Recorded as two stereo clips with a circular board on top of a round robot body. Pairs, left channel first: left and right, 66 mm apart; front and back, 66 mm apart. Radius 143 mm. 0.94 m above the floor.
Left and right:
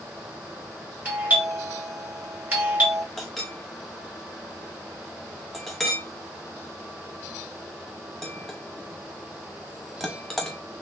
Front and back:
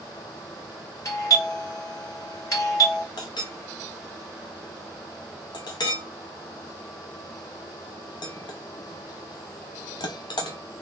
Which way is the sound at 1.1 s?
25° right.